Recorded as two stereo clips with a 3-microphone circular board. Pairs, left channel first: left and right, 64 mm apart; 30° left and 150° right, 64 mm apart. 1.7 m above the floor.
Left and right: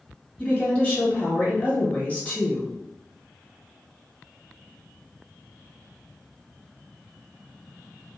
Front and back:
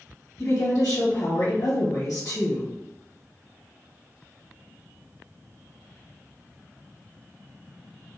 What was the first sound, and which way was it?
A woman speaking, 25° left.